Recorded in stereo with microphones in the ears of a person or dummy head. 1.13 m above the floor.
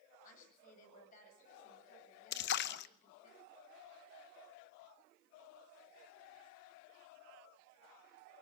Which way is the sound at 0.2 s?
45° left (ahead or behind).